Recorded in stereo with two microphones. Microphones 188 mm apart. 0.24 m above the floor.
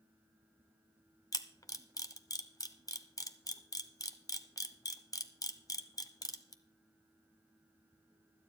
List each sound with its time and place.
1.3 s a camera shutter: 20° left (ahead or behind), 0.8 m